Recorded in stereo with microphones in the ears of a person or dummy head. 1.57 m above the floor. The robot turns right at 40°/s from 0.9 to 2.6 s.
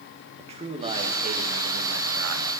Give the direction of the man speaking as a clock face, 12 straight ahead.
5 o'clock.